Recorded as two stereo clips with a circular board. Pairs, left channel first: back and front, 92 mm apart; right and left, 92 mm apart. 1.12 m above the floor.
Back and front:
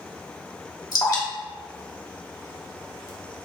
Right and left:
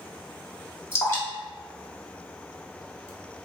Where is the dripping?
145° right, 1.2 m.